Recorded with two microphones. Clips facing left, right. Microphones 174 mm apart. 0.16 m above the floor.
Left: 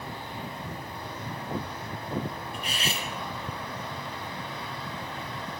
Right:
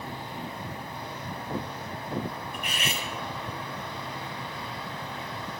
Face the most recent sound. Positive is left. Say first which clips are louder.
# even
turn(degrees=30)  # may be behind; listen again after turning